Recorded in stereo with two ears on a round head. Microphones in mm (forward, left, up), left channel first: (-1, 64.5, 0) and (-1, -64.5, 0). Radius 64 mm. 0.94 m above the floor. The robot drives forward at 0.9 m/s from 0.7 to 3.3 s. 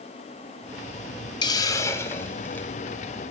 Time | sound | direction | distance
1.4 | a hiss | 30° left (ahead or behind) | 0.8 m